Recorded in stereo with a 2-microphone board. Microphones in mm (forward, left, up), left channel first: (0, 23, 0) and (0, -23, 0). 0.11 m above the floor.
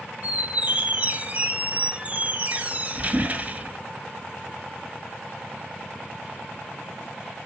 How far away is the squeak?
About 0.9 m.